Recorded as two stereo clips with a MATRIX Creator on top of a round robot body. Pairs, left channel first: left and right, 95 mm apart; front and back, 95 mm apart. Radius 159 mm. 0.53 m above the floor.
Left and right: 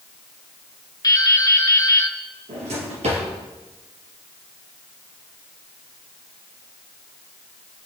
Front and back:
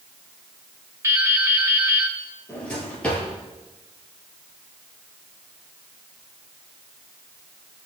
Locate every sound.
1.0 s dripping: 130° left, 1.8 m
2.5 s a drawer: 80° right, 3.5 m